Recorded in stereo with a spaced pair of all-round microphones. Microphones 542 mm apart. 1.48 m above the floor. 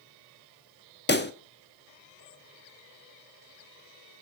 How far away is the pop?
About 1.1 m.